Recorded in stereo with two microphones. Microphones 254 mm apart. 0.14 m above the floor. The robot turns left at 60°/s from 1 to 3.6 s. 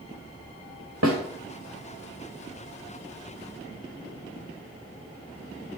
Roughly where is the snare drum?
Right.